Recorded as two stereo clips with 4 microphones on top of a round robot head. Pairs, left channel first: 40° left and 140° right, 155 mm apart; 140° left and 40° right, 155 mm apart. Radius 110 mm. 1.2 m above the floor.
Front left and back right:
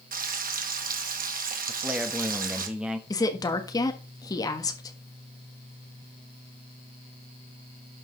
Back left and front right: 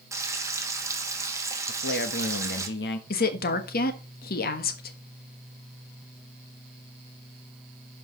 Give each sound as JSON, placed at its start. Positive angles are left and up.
{"t": 0.1, "sound": "frying", "azimuth_deg": -115, "distance_m": 1.8}
{"t": 1.7, "sound": "a man speaking", "azimuth_deg": 140, "distance_m": 1.4}
{"t": 3.1, "sound": "a woman speaking", "azimuth_deg": 110, "distance_m": 1.5}